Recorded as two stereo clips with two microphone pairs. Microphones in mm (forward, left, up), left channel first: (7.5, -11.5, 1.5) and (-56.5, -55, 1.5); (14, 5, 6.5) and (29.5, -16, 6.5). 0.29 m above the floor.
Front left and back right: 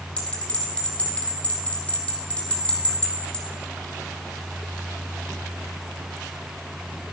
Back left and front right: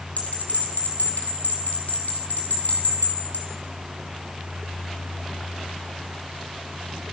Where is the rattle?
No rattle in this recording.